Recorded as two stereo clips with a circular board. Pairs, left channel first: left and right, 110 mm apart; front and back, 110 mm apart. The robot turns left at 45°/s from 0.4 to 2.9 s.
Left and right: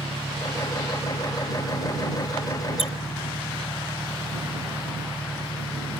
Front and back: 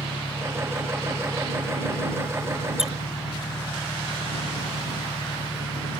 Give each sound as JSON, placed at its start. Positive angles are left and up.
{"t": 0.0, "sound": "an engine running", "azimuth_deg": 160}
{"t": 2.8, "sound": "a squeak", "azimuth_deg": 95}